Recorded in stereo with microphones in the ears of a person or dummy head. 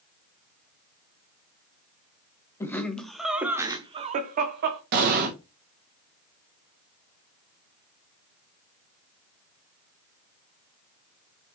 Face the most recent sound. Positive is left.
turn(degrees=-55)  # may be behind; listen again after turning